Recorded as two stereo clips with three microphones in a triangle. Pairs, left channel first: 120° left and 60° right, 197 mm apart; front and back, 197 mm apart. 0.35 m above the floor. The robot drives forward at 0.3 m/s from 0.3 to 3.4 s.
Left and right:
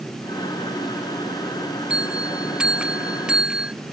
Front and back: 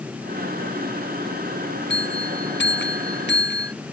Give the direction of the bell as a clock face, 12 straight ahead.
11 o'clock.